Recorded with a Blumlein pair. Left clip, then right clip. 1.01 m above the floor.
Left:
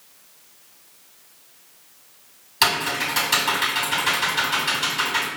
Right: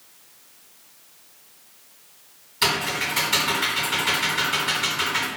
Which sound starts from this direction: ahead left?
Typing on a keyboard, at 2.6 s.